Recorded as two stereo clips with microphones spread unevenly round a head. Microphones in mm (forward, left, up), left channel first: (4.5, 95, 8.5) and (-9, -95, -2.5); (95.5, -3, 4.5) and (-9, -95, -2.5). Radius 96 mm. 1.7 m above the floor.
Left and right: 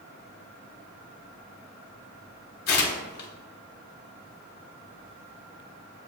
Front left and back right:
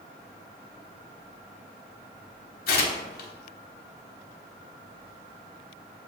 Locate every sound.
2.7 s tearing paper: 45° left, 0.9 m